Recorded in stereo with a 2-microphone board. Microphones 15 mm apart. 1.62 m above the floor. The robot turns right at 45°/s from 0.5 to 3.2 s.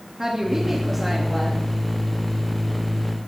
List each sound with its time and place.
0.2 s a woman speaking: 25° right, 3 m; by 1.6 s 25° left, 3 m